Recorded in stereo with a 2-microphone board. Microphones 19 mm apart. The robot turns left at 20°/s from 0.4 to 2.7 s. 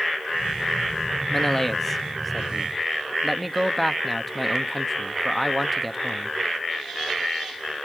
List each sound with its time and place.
1.3 s a man speaking: 10° left (ahead or behind), 0.8 m; by 6.4 s centre (ahead or behind), 0.8 m